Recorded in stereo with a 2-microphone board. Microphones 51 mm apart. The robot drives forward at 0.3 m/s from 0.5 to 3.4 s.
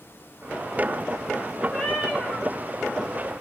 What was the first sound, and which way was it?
A cat meowing, 15° left (ahead or behind).